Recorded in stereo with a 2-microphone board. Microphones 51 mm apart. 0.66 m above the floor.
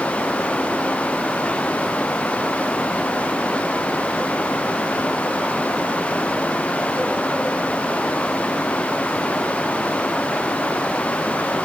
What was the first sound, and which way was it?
Only background noise.